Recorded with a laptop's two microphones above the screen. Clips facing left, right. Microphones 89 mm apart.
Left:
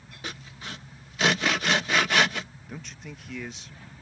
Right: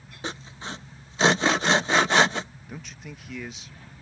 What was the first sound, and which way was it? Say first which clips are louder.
Sawing: right 4 dB; 30° right (ahead or behind).